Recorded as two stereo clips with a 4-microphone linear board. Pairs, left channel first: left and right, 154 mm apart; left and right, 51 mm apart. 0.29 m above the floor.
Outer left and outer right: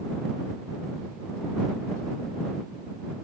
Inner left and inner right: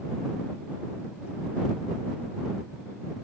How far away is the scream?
No scream in this recording.